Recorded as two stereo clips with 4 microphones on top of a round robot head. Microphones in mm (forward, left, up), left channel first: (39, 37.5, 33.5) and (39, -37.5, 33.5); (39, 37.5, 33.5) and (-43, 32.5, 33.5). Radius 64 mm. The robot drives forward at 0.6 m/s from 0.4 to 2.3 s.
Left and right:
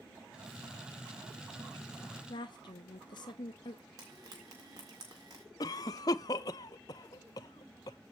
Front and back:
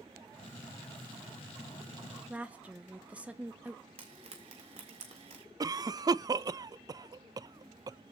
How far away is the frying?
About 1.7 m.